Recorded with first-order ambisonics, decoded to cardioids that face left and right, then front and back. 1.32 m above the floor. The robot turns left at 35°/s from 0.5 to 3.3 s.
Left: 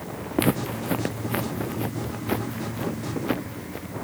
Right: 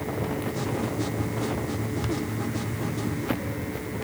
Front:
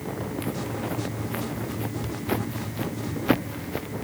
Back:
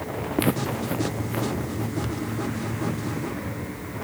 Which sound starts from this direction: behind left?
Footsteps, at 0.4 s.